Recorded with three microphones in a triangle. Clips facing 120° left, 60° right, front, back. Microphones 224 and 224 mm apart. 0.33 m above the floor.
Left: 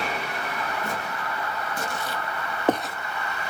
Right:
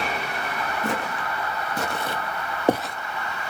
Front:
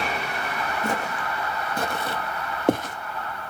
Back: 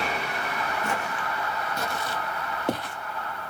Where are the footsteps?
55° right, 1.1 m; by 3.0 s 35° left, 0.5 m.